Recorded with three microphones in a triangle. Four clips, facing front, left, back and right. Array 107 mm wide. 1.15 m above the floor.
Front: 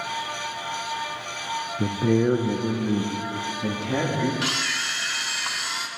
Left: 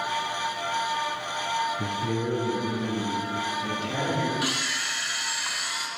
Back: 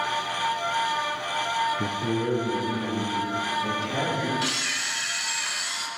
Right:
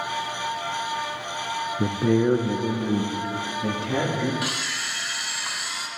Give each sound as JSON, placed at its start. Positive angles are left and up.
{"t": 1.8, "sound": "a man speaking", "azimuth_deg": -70, "distance_m": 0.6}
{"t": 4.4, "sound": "a camera shutter", "azimuth_deg": 0, "distance_m": 1.1}